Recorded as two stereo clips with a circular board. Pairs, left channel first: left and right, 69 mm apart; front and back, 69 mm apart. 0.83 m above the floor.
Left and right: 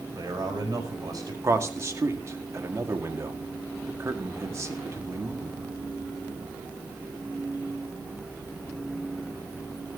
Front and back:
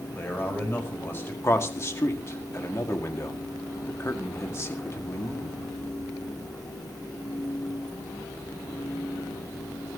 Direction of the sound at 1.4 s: 45° right.